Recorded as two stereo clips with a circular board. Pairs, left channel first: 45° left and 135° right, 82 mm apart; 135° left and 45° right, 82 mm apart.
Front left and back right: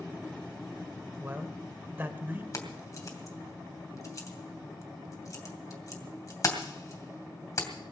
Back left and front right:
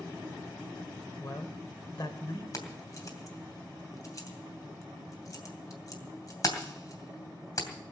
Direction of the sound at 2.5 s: 90° left.